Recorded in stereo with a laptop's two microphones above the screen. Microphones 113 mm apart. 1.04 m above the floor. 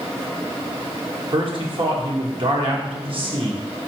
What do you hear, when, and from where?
1.3 s a man speaking: 55° right (ahead or behind), 1.2 m